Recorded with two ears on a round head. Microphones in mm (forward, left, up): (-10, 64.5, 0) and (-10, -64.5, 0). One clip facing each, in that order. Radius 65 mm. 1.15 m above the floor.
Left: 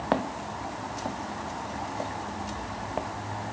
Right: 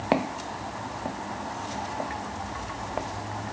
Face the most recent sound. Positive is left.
turn(degrees=5)  # may be behind; listen again after turning